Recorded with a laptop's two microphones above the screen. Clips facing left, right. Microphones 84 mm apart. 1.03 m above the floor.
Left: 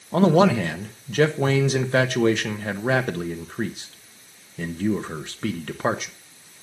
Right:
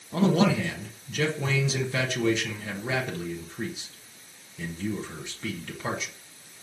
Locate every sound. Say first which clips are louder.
0.1 s a man speaking: left 6 dB; 60° left (ahead or behind), 1.2 m